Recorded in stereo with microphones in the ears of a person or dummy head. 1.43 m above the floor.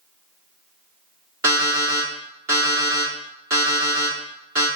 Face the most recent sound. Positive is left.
turn(degrees=-15)  # may be behind; listen again after turning